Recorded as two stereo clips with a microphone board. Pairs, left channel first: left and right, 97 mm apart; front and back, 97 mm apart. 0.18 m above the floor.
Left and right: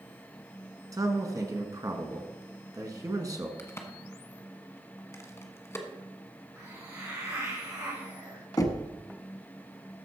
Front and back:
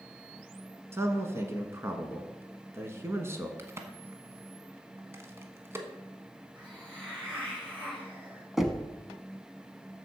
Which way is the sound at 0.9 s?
125° right.